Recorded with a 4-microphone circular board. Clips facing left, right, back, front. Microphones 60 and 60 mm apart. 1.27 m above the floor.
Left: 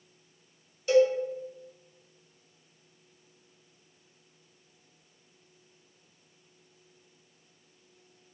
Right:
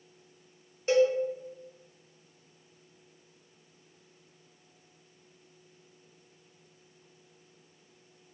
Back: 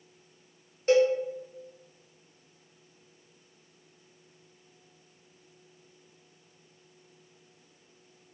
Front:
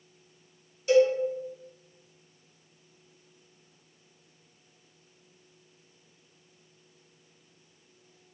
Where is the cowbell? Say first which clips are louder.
Left 2 dB, front 1 dB; 140° right, 0.8 m.